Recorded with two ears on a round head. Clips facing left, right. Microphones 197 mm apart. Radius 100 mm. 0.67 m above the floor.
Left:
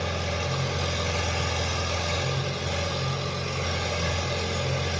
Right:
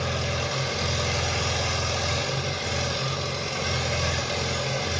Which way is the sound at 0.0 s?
50° right (ahead or behind).